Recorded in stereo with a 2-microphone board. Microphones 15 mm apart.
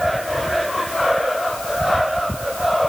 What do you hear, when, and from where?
Only background noise.